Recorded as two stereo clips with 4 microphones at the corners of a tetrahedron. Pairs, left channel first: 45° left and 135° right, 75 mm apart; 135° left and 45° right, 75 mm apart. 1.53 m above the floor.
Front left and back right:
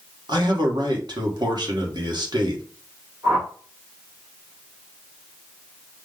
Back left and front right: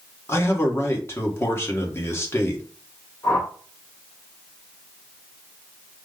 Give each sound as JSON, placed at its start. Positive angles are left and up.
{"t": 0.3, "sound": "a man speaking", "azimuth_deg": -165, "distance_m": 1.3}
{"t": 3.2, "sound": "a whoosh", "azimuth_deg": 180, "distance_m": 3.0}